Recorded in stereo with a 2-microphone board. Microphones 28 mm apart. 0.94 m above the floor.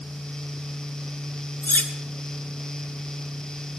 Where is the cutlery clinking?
85° left, 1.4 m.